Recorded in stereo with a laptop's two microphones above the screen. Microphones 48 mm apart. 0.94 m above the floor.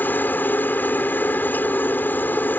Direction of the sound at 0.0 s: 40° left (ahead or behind).